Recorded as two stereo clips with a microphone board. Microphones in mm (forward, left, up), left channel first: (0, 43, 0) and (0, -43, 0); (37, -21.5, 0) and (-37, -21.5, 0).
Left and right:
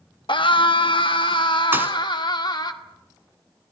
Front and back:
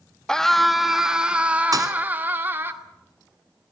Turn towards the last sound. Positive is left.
turn(degrees=-155)